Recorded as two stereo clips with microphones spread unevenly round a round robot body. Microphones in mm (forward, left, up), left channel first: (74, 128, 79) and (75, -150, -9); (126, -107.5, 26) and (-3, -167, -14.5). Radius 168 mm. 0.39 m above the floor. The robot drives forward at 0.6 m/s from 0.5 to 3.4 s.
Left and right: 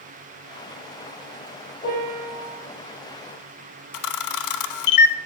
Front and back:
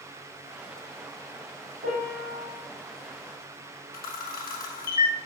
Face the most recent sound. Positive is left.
turn(degrees=75)